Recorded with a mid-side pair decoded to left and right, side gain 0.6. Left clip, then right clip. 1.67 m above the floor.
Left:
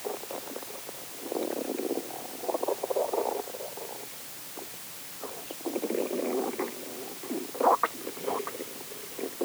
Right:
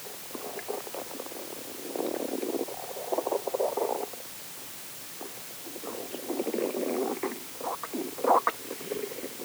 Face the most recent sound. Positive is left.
No sound to turn to.